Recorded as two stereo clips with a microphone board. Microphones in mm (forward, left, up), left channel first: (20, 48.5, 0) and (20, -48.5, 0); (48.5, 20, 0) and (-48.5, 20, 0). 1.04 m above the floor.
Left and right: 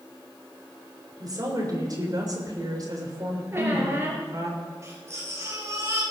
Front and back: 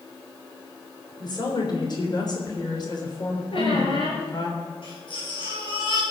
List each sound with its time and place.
1.2 s a woman speaking: 40° right, 3.5 m
3.5 s a squeak: 25° right, 3.5 m
4.8 s a baby crying: 30° right, 5.5 m